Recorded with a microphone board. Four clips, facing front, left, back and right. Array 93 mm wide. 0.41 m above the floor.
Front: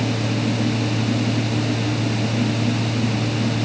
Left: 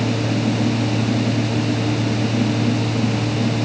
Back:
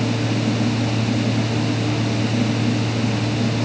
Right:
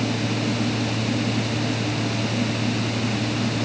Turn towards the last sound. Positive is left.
No sound to turn to.